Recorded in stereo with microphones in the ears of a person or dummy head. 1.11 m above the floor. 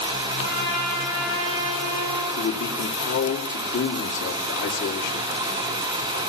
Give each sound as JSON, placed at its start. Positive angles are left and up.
{"t": 0.4, "sound": "a trumpet", "side_deg": -55, "distance_m": 9.5}
{"t": 2.4, "sound": "a man speaking", "side_deg": 65, "distance_m": 2.5}